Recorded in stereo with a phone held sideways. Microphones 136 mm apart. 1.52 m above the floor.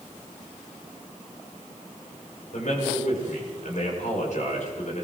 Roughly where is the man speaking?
Left.